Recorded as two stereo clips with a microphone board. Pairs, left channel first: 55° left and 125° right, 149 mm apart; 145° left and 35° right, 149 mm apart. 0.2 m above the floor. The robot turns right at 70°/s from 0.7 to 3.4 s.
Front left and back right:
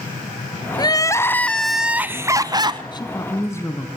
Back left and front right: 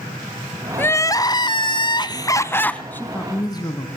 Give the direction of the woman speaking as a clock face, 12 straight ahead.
9 o'clock.